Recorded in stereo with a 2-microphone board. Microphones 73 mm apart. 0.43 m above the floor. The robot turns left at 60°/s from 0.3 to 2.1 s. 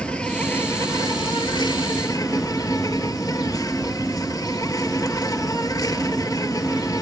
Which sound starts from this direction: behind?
An insect, at 0.0 s.